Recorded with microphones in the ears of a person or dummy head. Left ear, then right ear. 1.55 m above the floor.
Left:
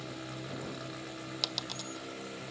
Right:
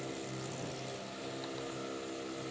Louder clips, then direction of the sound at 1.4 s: Left 5 dB; 80° left.